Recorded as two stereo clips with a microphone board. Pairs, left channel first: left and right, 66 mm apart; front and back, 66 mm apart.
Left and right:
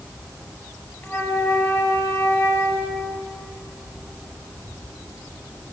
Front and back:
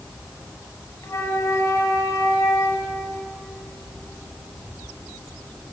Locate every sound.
1.0 s a flute: 40° left, 4.5 m